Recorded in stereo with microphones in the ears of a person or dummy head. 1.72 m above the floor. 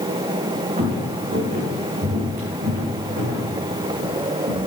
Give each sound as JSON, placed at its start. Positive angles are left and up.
{"t": 0.8, "sound": "footsteps", "side_deg": -40, "distance_m": 4.0}